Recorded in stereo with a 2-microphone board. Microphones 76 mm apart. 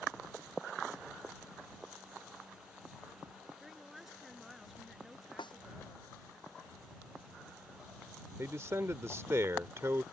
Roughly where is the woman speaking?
Centre.